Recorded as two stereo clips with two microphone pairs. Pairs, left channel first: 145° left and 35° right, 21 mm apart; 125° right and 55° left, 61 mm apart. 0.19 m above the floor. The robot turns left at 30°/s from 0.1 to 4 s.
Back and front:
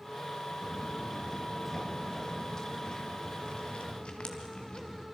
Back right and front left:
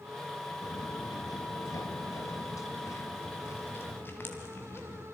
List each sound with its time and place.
0.6 s footsteps: 135° right, 1.2 m; by 5.0 s 170° right, 3 m